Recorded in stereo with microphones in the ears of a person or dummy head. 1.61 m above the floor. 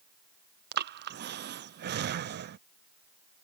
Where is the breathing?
50° right (ahead or behind).